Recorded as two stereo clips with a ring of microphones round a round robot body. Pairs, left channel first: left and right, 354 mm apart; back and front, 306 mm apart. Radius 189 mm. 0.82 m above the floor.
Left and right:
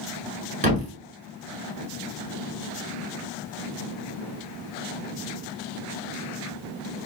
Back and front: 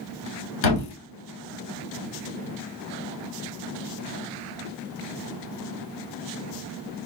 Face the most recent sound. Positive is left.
turn(degrees=-160)